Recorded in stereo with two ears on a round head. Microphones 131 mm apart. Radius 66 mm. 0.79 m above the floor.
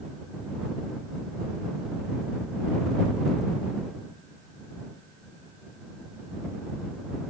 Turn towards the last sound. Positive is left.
No sound to turn to.